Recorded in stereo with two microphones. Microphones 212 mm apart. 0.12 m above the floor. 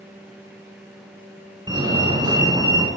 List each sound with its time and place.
1.7 s a fire alarm: 20° right (ahead or behind), 2.0 m